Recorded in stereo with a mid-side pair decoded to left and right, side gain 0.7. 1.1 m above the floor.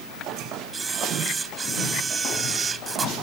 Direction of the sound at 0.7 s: 25° right.